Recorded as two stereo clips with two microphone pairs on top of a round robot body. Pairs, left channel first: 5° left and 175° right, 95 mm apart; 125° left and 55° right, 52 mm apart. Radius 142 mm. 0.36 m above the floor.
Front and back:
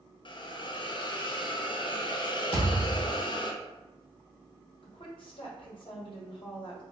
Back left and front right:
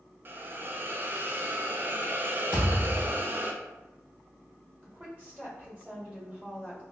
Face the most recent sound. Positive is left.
turn(degrees=0)